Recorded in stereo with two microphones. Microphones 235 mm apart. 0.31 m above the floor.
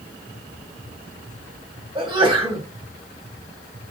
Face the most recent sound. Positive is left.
turn(degrees=-20)  # may be behind; listen again after turning